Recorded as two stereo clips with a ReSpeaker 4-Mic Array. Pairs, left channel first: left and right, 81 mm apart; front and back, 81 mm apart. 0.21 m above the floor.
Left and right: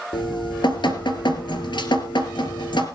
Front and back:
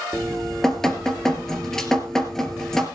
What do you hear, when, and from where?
0.1 s dripping: 85° left, 2.5 m